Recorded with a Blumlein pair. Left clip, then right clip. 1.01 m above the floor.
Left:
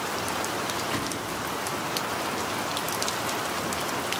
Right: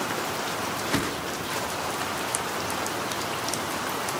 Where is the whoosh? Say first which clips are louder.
Right 2 dB; 15° right, 0.7 m.